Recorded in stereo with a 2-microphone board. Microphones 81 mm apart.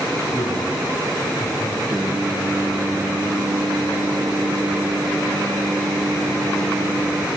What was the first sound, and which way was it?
A man speaking, 60° left (ahead or behind).